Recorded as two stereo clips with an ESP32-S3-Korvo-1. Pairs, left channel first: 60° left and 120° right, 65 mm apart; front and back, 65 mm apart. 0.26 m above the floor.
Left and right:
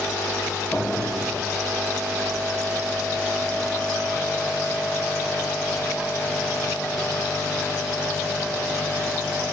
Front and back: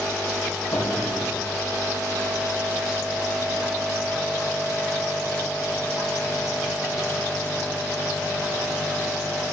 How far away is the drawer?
About 7.5 m.